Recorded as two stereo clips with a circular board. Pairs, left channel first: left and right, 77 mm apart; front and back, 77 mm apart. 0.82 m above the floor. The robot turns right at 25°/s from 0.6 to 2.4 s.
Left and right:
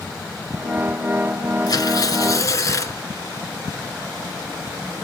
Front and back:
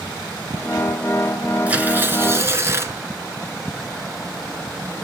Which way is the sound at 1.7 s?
110° left.